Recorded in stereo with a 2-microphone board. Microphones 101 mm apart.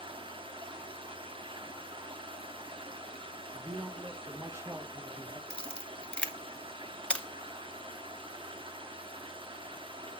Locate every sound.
0.0 s running water: 60° right (ahead or behind), 1.0 m
3.5 s a man speaking: 25° right (ahead or behind), 1.0 m
5.5 s a camera shutter: 10° left (ahead or behind), 0.8 m